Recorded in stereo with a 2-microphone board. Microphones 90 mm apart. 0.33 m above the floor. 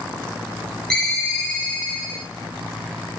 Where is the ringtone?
5° left (ahead or behind), 0.7 m.